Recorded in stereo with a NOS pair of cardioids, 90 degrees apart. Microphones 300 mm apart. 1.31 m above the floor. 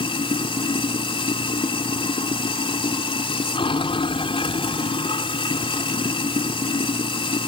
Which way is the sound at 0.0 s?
15° left.